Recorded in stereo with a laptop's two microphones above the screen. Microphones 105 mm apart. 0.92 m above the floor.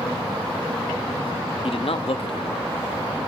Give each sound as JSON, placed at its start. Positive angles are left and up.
{"t": 1.6, "sound": "a man speaking", "side_deg": 65, "distance_m": 0.9}